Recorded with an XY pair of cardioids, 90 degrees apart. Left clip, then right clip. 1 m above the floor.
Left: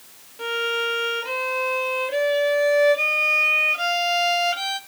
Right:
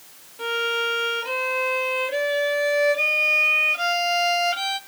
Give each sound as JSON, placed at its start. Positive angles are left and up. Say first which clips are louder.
{"t": 0.4, "sound": "a violin", "louder": "even", "azimuth_deg": 0, "distance_m": 0.9}